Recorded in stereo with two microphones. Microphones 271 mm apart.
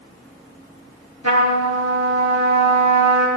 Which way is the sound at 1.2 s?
80° right.